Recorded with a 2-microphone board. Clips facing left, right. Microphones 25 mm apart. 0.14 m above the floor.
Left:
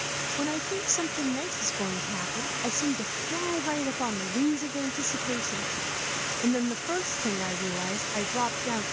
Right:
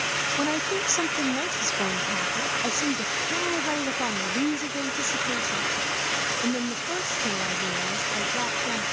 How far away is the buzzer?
No buzzer in this recording.